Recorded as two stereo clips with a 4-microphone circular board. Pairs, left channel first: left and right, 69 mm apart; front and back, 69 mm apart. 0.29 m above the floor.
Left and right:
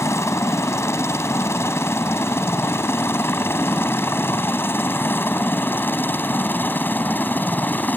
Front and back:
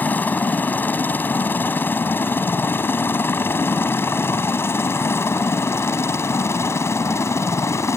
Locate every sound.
0.0 s a helicopter: 60° left; by 8.0 s 35° left